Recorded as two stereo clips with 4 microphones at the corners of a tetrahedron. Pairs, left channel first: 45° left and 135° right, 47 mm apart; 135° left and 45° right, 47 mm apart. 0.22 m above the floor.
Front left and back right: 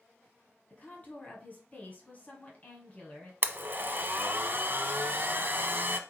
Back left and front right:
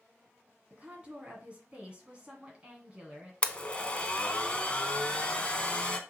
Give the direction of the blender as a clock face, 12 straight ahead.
6 o'clock.